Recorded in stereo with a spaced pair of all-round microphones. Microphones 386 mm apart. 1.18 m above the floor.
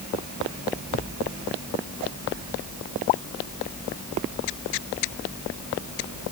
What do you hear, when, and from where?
Only background noise.